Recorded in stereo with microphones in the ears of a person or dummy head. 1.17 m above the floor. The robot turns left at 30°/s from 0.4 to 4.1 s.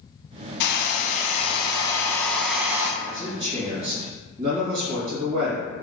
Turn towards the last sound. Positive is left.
turn(degrees=-45)